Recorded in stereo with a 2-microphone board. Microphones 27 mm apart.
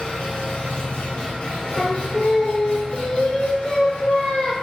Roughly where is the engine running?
Left.